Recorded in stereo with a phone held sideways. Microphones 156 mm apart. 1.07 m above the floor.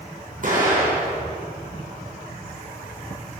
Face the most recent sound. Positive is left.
turn(degrees=-60)  # may be behind; listen again after turning